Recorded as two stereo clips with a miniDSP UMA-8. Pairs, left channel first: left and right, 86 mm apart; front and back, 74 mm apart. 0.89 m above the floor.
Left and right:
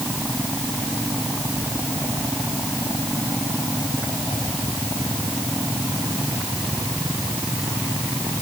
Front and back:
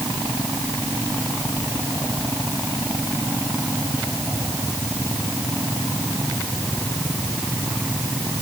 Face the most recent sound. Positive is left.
No sound to turn to.